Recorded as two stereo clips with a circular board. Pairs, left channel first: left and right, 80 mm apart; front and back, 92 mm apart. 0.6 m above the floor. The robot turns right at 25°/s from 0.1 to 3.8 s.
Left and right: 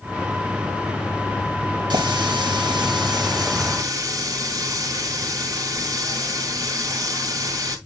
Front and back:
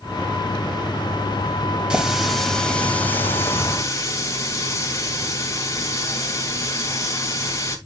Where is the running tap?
100° right, 2 m; by 7.8 s 55° right, 2 m.